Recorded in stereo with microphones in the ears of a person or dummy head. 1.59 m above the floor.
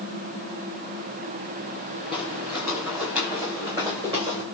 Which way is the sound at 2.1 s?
15° right (ahead or behind).